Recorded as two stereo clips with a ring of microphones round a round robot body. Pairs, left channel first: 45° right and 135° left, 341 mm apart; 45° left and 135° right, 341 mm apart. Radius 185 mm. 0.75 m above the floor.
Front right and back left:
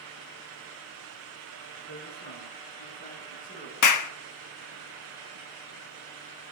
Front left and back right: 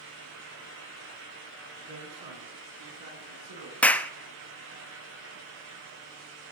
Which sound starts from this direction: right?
A man speaking, at 1.9 s.